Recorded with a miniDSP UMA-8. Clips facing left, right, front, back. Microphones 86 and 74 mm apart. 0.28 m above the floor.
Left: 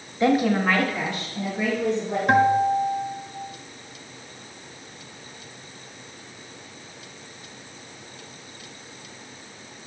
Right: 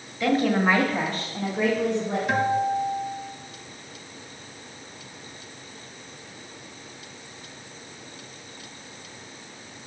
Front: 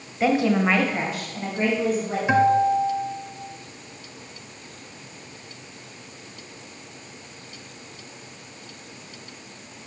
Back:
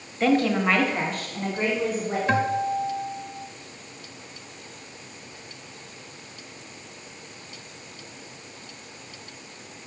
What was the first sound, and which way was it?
A woman speaking, 70° left.